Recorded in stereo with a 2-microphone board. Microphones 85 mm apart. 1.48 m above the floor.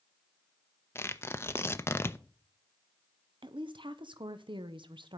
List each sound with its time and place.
0.9 s tearing paper: 30° left (ahead or behind), 0.6 m
3.4 s a woman speaking: 75° right (ahead or behind), 0.8 m